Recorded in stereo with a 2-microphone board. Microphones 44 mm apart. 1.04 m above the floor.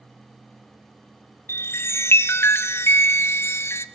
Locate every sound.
1.5 s a chime: 75° left (ahead or behind), 0.5 m